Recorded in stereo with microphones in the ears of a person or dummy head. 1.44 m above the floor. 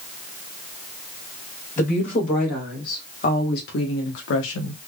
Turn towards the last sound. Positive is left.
turn(degrees=85)